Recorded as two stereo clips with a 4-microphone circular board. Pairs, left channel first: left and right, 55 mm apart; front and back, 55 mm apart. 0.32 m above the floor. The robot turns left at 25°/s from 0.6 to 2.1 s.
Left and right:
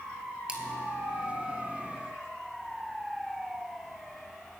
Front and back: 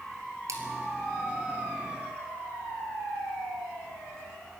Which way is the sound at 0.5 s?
160° right.